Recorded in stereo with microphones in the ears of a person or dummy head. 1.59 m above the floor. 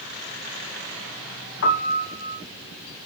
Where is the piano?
65° left (ahead or behind), 0.7 m.